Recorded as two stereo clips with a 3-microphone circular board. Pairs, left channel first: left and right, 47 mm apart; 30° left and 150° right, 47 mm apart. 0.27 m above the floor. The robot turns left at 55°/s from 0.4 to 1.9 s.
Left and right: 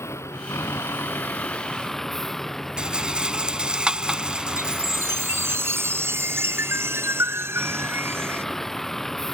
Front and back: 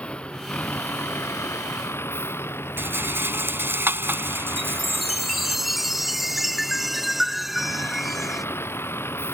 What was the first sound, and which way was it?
A vehicle, 90° left.